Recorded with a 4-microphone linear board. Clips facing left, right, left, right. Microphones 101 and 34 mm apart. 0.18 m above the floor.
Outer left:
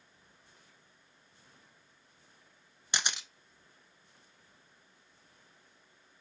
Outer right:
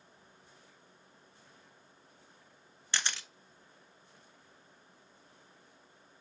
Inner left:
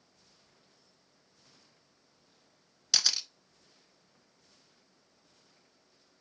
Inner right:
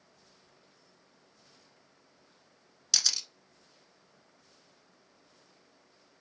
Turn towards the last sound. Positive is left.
turn(degrees=15)  # may be behind; listen again after turning